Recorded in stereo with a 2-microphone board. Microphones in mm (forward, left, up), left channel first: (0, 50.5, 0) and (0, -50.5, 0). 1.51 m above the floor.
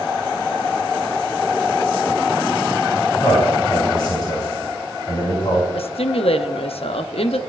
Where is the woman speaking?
70° left (ahead or behind), 0.6 m.